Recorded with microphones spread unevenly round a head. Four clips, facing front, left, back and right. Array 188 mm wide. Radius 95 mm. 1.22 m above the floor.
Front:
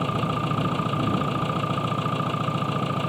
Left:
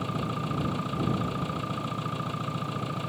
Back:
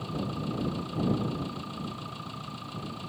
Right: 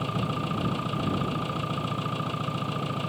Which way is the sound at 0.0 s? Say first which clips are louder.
Right 2 dB, front 8 dB; 5° right.